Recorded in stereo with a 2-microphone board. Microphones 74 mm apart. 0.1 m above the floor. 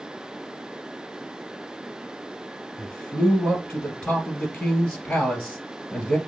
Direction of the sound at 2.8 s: 20° left (ahead or behind).